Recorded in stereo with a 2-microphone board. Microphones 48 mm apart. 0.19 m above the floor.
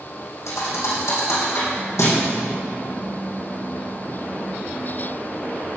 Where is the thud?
75° left (ahead or behind), 3.5 m.